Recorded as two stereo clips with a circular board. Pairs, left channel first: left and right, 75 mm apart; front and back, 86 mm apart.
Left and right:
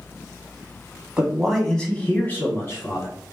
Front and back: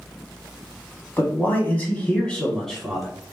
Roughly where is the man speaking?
Ahead.